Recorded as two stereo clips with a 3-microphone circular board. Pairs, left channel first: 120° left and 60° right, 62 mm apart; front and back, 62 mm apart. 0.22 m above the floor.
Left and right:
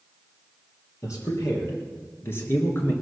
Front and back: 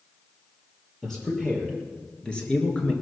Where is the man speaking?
85° left, 4.5 m; by 2.9 s 65° left, 2.5 m.